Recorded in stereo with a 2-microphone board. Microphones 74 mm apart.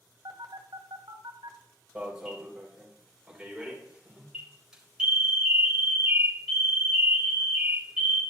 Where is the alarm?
10° right (ahead or behind), 3 m.